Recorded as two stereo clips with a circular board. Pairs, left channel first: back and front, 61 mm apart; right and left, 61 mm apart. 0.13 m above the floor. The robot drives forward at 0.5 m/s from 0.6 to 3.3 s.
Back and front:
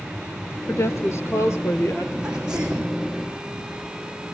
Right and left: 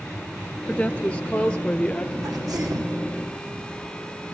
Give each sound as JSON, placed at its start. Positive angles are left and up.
{"t": 0.7, "sound": "a woman speaking", "azimuth_deg": -155, "distance_m": 2.0}
{"t": 2.2, "sound": "a sneeze", "azimuth_deg": 75, "distance_m": 7.0}